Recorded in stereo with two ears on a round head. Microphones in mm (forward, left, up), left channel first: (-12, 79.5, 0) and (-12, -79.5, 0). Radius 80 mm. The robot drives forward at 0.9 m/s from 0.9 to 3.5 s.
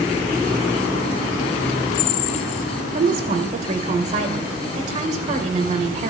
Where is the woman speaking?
55° right (ahead or behind), 2 m; by 6.1 s 45° right (ahead or behind), 2.5 m.